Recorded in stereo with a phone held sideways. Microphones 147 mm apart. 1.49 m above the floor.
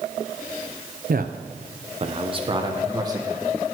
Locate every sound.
1.1 s a man speaking: 70° right (ahead or behind), 0.7 m; by 3.7 s 20° right (ahead or behind), 1.8 m